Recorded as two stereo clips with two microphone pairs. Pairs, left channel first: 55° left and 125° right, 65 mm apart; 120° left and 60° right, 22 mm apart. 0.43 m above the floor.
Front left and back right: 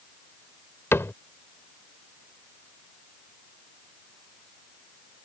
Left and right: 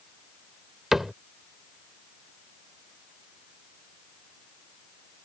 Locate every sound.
0.9 s a cupboard door: 15° left